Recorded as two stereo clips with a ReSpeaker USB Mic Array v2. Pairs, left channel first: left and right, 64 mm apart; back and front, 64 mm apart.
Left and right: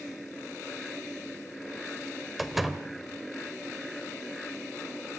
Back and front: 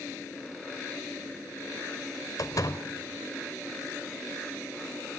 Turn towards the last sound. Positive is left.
turn(degrees=180)